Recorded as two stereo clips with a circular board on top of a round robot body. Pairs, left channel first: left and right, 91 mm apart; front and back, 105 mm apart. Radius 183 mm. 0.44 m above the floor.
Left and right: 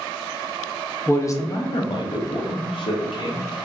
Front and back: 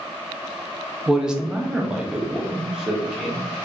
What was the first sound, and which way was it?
A man speaking, 105° left.